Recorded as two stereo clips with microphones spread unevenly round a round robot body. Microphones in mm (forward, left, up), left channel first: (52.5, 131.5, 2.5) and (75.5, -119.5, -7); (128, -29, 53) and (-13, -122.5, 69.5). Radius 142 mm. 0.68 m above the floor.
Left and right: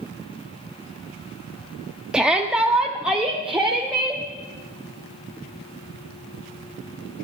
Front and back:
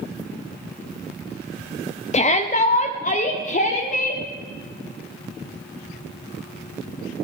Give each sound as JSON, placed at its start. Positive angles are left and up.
{"t": 2.1, "sound": "a shout", "azimuth_deg": 0, "distance_m": 0.8}